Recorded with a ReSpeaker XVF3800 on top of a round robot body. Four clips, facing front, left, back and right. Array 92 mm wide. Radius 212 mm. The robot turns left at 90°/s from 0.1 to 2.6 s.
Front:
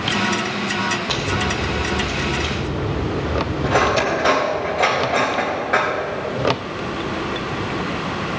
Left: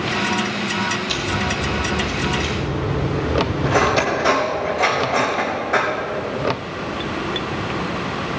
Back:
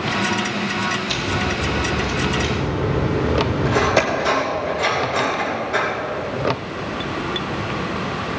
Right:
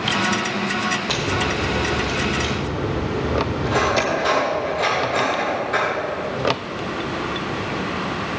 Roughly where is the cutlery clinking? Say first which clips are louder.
Left 2 dB, front 2 dB; ahead.